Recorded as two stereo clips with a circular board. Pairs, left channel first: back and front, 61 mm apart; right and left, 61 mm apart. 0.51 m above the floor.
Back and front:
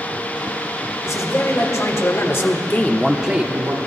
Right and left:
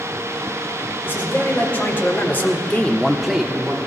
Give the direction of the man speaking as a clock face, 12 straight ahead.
5 o'clock.